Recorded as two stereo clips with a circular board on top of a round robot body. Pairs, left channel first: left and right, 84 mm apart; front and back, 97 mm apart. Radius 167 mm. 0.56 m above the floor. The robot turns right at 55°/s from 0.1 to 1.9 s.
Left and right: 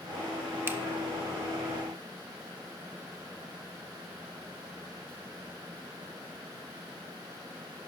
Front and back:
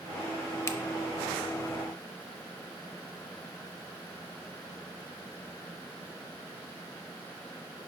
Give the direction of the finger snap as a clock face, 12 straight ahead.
1 o'clock.